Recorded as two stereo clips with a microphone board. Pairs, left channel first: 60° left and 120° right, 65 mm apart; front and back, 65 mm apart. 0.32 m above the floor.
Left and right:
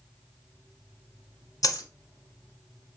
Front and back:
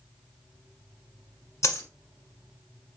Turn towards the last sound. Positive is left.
turn(degrees=40)